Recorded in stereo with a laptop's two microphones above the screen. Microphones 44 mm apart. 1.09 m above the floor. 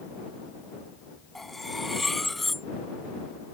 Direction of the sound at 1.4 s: 5° left (ahead or behind).